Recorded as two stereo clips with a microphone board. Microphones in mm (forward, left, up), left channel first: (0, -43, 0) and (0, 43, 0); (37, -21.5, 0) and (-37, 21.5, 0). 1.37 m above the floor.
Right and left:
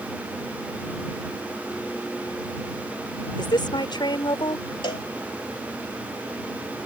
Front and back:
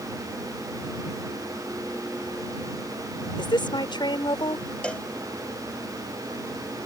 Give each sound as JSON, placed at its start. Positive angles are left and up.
{"t": 3.4, "sound": "a woman speaking", "azimuth_deg": -60}
{"t": 4.8, "sound": "a cowbell", "azimuth_deg": -105}